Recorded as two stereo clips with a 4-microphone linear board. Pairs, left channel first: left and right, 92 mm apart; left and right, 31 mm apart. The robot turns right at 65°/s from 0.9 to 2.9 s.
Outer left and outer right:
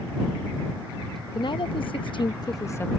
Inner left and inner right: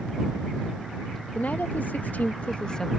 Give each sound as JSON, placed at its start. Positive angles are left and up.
{"t": 1.4, "sound": "a woman speaking", "azimuth_deg": 55}